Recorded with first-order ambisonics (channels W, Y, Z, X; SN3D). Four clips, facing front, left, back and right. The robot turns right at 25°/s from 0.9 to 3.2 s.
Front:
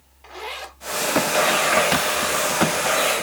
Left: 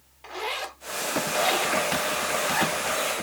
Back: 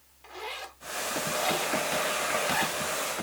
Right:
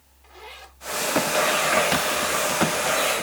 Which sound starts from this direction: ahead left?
A zipper, at 0.2 s.